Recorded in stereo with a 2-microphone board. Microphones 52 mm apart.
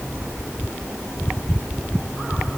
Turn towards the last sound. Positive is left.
No sound to turn to.